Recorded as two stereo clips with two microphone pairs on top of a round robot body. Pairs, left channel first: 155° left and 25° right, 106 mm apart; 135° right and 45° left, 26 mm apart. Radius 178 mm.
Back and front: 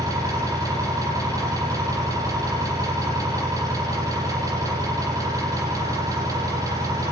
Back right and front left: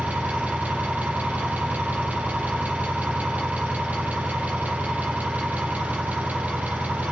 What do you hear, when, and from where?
0.0 s an engine running: 35° left, 9.5 m